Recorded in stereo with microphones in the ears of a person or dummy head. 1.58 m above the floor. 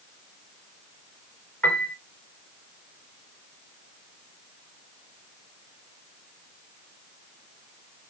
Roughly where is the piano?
Centre.